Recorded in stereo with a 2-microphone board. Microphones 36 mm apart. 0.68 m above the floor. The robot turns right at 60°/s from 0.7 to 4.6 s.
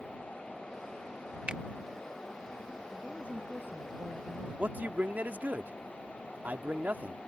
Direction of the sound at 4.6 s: 55° right (ahead or behind).